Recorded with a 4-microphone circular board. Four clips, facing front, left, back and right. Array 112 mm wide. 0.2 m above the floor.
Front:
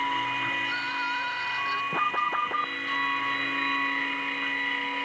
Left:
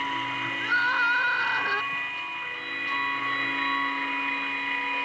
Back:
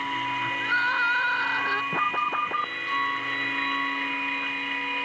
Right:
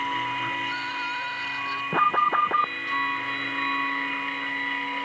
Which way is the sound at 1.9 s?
90° right.